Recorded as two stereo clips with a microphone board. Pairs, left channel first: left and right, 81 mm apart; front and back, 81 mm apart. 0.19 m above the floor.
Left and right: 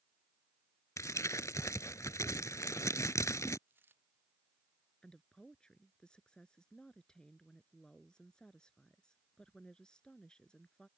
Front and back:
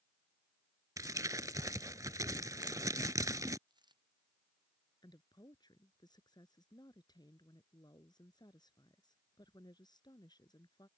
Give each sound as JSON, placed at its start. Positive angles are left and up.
{"t": 1.0, "sound": "crumpling", "azimuth_deg": 135}
{"t": 3.7, "sound": "a dropped coin", "azimuth_deg": -155}
{"t": 5.0, "sound": "a woman speaking", "azimuth_deg": 10}